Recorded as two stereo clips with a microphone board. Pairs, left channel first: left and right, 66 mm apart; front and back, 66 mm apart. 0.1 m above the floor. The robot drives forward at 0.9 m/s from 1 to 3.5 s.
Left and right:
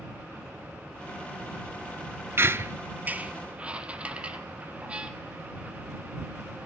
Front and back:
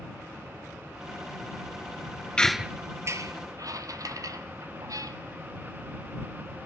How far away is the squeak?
About 0.5 m.